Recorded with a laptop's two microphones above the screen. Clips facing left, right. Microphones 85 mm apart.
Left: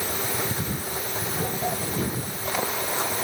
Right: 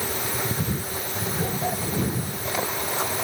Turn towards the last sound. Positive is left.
No sound to turn to.